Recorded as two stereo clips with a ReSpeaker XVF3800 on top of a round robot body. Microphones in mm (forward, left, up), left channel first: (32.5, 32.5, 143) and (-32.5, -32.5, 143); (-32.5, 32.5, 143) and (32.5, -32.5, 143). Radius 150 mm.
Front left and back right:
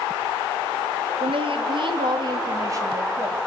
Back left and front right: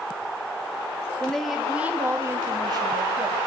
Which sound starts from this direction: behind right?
A woman speaking, at 1.2 s.